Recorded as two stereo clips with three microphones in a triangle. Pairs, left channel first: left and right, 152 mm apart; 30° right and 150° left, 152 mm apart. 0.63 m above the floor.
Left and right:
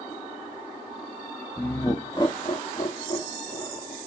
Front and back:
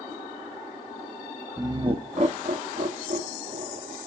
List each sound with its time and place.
1.6 s laughter: 150° left, 0.6 m; by 4.0 s 140° left, 2.0 m